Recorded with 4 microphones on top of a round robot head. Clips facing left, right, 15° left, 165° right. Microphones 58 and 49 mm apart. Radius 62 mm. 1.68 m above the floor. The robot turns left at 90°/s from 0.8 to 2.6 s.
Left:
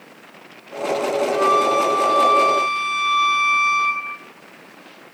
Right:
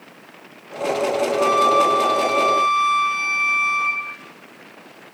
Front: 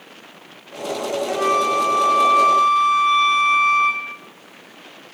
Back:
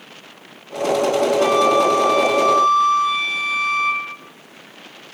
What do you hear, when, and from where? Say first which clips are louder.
1.3 s a flute: even, back 1 dB; 75° left, 2.5 m; by 4.0 s 45° right, 2.5 m